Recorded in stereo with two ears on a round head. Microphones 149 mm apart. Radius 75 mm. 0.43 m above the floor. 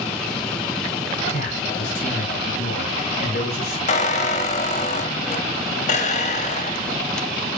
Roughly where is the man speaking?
Left.